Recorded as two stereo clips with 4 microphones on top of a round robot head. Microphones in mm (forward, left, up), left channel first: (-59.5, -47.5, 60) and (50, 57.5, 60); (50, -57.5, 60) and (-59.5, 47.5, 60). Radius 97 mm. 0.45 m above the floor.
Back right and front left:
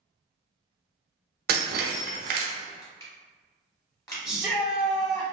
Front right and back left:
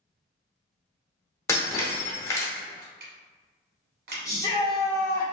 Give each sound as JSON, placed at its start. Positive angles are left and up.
{"t": 1.5, "sound": "breaking glass", "azimuth_deg": 30, "distance_m": 0.6}
{"t": 2.8, "sound": "crushing", "azimuth_deg": 155, "distance_m": 1.0}
{"t": 4.2, "sound": "a shout", "azimuth_deg": -35, "distance_m": 1.0}